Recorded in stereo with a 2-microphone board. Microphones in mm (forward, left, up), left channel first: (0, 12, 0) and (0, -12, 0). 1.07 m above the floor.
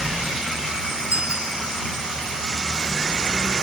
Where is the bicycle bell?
55° right (ahead or behind).